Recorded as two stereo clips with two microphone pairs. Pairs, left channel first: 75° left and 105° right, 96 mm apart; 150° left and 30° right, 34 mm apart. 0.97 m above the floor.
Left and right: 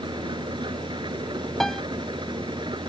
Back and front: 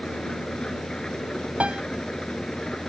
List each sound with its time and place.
0.0 s an engine running: 140° right
1.6 s a piano: 10° right